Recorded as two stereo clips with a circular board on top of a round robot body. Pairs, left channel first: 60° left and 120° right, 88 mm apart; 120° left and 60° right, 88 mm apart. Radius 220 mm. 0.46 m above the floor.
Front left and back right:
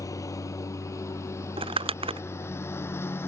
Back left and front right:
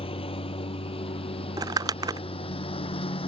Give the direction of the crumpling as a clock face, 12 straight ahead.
4 o'clock.